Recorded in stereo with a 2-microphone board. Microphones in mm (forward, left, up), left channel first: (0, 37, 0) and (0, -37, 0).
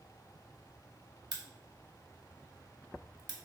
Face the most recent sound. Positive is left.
turn(degrees=-60)  # may be behind; listen again after turning